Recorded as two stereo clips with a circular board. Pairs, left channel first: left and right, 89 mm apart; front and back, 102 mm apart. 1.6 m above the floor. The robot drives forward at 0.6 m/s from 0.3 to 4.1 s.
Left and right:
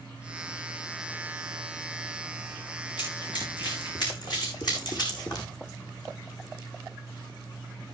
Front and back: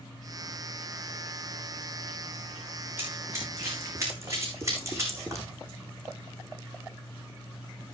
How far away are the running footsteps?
About 6.5 m.